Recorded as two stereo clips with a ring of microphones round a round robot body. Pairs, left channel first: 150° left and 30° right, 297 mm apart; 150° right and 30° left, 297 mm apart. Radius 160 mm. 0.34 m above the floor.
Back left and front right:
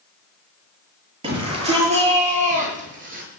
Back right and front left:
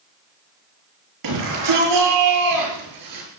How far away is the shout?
About 7.5 m.